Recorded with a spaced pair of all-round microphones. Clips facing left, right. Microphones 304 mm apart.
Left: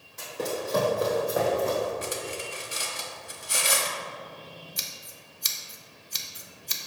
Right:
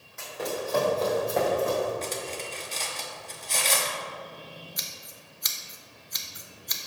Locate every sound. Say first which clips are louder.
0.2 s running footsteps: left 1 dB; 45° left (ahead or behind), 2 m; by 1.9 s 10° right (ahead or behind), 2.5 m
2.0 s cutlery clinking: even; 15° left (ahead or behind), 0.8 m
4.8 s scissors: even; 40° left (ahead or behind), 0.7 m